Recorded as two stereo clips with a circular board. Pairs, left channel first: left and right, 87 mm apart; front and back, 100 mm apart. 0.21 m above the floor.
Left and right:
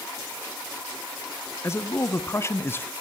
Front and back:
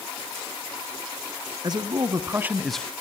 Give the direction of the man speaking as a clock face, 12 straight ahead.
7 o'clock.